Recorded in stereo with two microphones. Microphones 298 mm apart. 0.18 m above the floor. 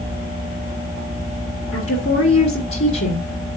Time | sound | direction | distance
1.7 | a woman speaking | 50° left (ahead or behind) | 2.5 m